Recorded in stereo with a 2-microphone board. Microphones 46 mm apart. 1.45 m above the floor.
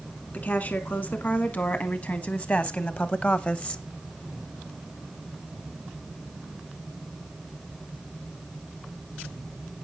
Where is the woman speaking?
45° left (ahead or behind), 3 m; by 3.8 s 25° left (ahead or behind), 1.0 m.